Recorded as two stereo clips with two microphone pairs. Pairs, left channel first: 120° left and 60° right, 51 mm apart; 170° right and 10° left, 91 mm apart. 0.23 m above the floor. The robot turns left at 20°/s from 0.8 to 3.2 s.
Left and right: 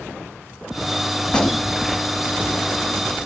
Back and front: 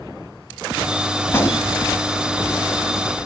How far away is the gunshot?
About 0.8 m.